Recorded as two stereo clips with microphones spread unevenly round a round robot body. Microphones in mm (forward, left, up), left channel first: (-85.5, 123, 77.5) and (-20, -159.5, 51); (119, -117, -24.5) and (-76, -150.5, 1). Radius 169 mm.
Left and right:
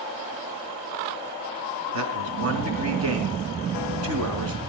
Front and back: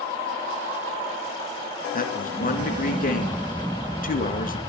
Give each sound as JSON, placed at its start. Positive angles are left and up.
{"t": 1.9, "sound": "a man speaking", "azimuth_deg": -35, "distance_m": 3.5}